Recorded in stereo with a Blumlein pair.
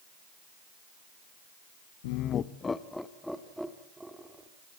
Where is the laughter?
50° left, 0.7 m; by 4.5 s 10° right, 3 m.